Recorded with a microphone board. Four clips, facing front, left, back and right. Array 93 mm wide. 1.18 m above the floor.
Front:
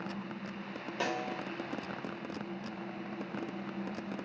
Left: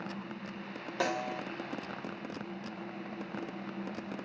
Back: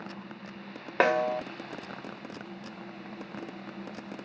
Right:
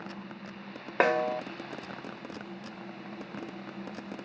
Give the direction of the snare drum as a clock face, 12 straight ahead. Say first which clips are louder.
Right 8 dB, back 11 dB; 5 o'clock.